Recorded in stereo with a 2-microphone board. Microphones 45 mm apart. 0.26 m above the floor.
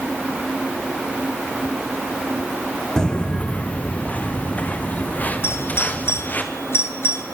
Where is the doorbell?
60° left (ahead or behind), 6 m.